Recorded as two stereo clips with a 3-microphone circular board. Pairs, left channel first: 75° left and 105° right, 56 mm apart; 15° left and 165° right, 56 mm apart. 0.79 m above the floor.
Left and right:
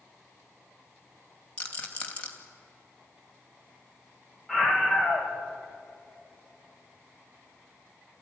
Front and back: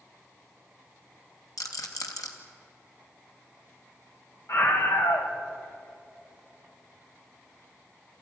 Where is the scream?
15° right, 3.5 m.